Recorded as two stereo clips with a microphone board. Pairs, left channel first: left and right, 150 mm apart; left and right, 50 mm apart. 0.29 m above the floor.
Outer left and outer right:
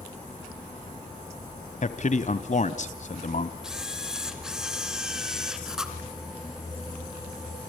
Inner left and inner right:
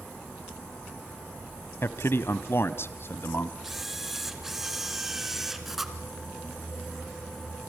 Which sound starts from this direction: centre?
A camera shutter, at 3.6 s.